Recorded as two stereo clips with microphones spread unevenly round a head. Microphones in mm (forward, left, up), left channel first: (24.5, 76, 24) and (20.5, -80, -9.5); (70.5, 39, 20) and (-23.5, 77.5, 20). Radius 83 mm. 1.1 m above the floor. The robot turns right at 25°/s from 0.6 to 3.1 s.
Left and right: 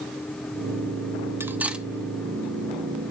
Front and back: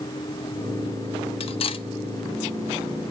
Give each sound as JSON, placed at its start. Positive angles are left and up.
{"t": 1.4, "sound": "cutlery clinking", "azimuth_deg": -10, "distance_m": 0.8}